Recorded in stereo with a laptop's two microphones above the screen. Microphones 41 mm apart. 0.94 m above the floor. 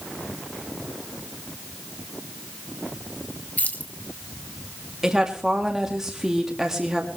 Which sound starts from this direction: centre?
A woman speaking, at 5.0 s.